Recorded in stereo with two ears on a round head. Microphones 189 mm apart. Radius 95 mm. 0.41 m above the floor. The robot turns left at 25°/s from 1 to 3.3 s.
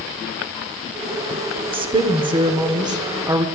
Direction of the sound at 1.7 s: 25° right (ahead or behind).